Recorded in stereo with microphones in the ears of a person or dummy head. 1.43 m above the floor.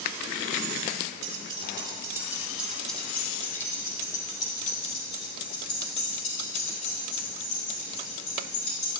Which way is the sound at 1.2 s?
35° right (ahead or behind).